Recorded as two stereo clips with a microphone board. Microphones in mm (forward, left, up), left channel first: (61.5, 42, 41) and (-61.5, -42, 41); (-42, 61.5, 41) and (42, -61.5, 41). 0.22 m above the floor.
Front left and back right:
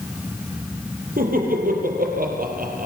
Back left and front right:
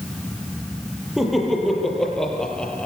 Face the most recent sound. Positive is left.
turn(degrees=-155)